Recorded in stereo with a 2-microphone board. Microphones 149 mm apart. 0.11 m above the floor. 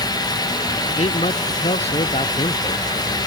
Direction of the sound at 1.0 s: 45° left (ahead or behind).